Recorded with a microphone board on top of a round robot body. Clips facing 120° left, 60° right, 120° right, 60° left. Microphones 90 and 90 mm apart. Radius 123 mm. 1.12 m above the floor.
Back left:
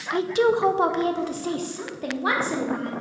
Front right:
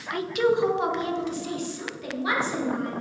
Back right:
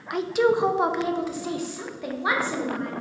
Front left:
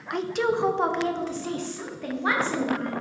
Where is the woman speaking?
155° left, 0.7 m; by 2.9 s 160° left, 2 m.